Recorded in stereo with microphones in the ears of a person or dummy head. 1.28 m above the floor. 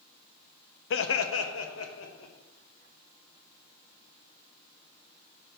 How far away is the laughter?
About 0.5 m.